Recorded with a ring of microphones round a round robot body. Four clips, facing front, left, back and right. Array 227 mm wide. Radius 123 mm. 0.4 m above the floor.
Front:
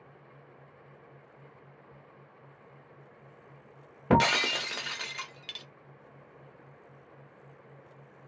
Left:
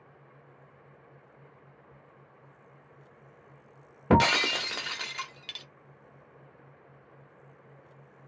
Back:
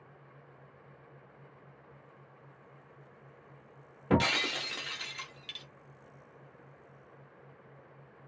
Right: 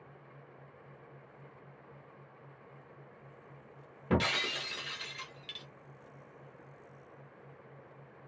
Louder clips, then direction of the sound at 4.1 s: Left 9 dB, front 4 dB; 65° left.